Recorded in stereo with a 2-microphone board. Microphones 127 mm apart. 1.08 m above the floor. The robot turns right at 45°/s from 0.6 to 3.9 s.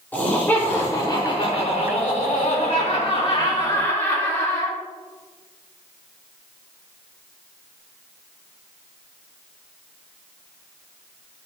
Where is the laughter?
15° left, 3.5 m; by 4.8 s 165° left, 3.5 m.